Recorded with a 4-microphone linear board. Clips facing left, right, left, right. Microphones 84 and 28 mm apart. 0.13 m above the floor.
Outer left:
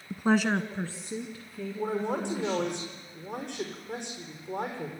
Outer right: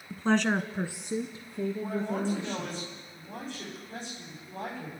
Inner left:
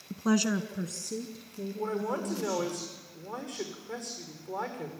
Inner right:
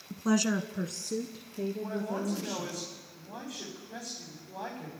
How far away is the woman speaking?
About 1.1 m.